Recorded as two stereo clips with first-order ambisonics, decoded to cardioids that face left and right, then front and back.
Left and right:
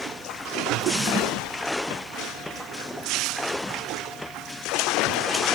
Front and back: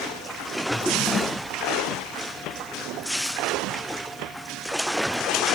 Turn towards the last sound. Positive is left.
turn(degrees=-50)